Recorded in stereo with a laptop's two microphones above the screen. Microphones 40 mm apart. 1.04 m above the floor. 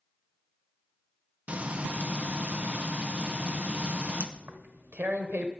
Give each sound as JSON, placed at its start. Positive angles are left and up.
{"t": 1.5, "sound": "frying", "side_deg": -30, "distance_m": 0.7}
{"t": 4.4, "sound": "tearing paper", "side_deg": -50, "distance_m": 1.1}